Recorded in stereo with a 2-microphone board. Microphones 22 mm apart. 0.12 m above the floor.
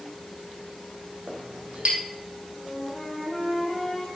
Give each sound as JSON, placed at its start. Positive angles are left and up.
{"t": 1.3, "sound": "a clink", "side_deg": -55, "distance_m": 2.5}
{"t": 2.6, "sound": "a flute", "side_deg": 10, "distance_m": 3.5}